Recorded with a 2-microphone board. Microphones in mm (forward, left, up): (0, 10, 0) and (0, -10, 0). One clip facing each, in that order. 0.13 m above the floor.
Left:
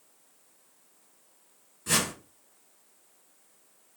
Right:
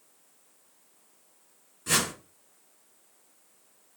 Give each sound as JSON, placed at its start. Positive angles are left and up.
{"t": 1.9, "sound": "a whoosh", "side_deg": 0, "distance_m": 1.5}